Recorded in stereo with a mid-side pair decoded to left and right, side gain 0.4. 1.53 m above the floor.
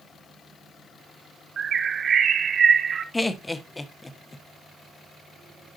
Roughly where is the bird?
Ahead right.